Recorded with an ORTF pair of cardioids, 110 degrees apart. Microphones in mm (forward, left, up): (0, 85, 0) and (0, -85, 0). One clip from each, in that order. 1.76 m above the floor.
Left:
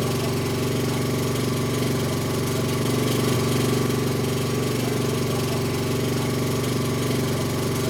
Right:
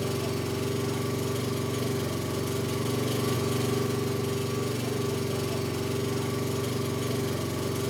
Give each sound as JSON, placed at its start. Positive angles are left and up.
{"t": 0.0, "sound": "an engine running", "azimuth_deg": 35, "distance_m": 1.1}